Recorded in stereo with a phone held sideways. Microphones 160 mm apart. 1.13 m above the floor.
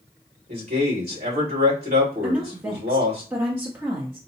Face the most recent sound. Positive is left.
turn(degrees=-15)  # may be behind; listen again after turning